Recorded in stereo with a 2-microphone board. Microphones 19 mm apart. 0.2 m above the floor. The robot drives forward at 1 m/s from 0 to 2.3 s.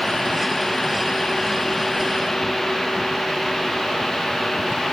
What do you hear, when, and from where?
Only background noise.